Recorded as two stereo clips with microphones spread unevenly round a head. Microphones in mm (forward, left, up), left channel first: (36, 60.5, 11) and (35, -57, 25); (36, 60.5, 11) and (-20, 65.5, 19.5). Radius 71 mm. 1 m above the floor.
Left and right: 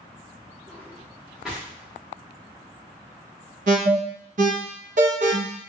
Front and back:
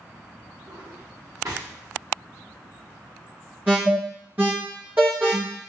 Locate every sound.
0.7 s a drawer: 175° right, 1.1 m
3.7 s an alarm: 115° right, 0.8 m